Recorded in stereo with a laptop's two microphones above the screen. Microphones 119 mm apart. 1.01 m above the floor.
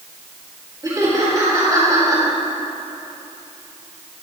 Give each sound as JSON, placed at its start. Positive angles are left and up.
{"t": 0.8, "sound": "laughter", "side_deg": -30, "distance_m": 2.5}